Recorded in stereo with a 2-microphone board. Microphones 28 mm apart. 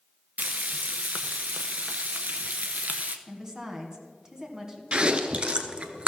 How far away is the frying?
About 0.7 m.